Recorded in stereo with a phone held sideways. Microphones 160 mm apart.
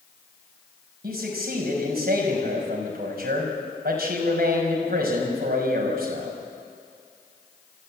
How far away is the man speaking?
About 5 m.